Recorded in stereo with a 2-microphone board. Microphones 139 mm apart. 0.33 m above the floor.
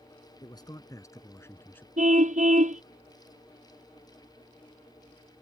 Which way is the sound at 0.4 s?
30° left (ahead or behind).